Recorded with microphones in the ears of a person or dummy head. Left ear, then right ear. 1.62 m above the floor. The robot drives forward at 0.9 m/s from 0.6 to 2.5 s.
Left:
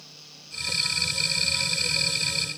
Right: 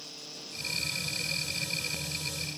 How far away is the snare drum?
No snare drum in this recording.